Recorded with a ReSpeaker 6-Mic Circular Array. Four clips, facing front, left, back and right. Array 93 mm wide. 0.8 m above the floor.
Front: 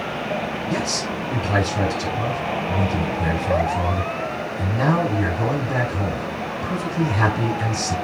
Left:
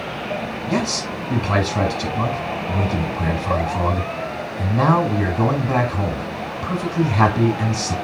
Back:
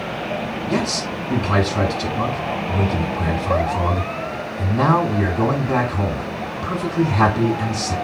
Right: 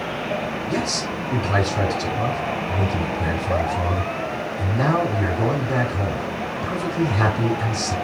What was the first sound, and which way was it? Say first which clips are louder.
A man speaking: left 5 dB, back 2 dB; 115° left.